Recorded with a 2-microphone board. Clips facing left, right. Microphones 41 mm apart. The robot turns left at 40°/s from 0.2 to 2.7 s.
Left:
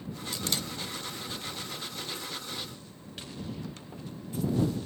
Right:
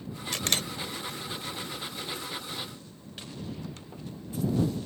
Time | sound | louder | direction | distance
0.3 | a camera shutter | right 4 dB | 70° right (ahead or behind) | ?